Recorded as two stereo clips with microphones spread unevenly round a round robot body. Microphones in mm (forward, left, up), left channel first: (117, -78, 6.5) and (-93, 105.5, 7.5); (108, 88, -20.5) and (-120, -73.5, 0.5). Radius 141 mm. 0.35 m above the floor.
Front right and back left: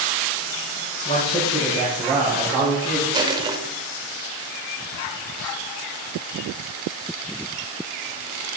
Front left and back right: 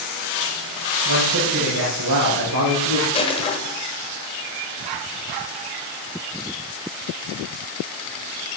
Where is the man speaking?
110° right, 4.5 m; by 3.0 s 140° right, 5 m.